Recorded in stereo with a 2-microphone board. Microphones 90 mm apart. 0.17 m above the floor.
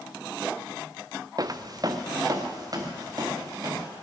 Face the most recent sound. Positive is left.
turn(degrees=-45)  # may be behind; listen again after turning